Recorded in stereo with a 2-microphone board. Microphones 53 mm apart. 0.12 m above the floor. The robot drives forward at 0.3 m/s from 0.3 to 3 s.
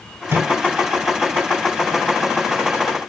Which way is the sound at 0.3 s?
55° right (ahead or behind).